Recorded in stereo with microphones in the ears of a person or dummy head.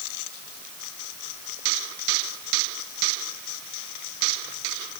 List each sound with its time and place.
Only background noise.